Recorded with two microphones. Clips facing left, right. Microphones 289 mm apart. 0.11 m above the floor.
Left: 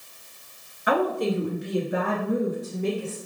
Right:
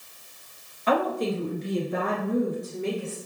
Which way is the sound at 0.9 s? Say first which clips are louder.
Left 1 dB; 15° left (ahead or behind).